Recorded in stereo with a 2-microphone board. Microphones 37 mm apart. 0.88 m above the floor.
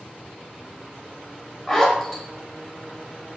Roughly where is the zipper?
Centre.